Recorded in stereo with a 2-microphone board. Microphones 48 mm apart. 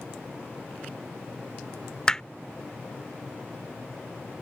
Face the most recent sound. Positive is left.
turn(degrees=15)  # may be behind; listen again after turning